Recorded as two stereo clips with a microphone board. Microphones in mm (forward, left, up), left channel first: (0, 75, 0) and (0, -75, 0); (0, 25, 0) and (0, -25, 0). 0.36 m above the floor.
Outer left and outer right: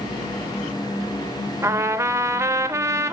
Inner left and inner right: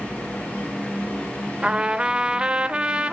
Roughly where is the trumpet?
Centre.